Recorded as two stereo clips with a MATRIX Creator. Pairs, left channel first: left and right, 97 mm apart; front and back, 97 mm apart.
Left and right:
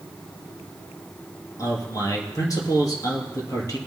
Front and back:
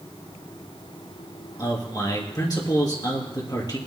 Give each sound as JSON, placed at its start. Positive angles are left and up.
{"t": 1.6, "sound": "a man speaking", "azimuth_deg": 45, "distance_m": 3.0}